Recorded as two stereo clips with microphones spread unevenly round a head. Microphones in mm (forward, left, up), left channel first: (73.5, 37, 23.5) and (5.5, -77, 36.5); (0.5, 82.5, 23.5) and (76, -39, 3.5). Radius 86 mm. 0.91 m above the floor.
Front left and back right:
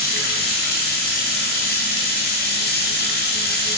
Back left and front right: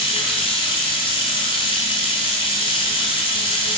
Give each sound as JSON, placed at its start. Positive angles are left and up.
{"t": 0.0, "sound": "running water", "azimuth_deg": 70, "distance_m": 3.0}